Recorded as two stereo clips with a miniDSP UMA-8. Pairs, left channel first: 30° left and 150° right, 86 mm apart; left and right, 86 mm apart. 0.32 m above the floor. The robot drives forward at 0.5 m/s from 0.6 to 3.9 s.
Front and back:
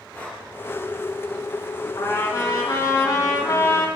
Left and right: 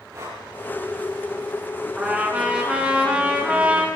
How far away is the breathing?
About 7.5 m.